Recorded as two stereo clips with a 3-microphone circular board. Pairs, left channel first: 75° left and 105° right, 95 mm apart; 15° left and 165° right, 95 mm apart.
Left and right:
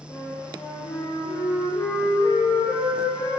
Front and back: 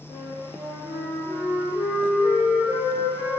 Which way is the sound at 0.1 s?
130° left.